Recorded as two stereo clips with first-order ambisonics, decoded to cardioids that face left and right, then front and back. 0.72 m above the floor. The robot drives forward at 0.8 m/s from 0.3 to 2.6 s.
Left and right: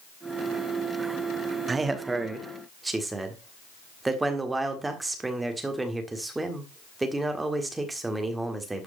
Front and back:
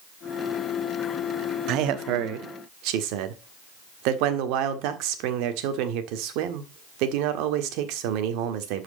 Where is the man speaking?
160° right, 0.9 m; by 8.9 s 170° right, 1.6 m.